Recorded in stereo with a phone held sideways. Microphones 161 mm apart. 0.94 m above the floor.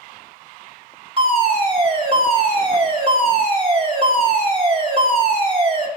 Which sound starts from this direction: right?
A fire alarm, at 1.2 s.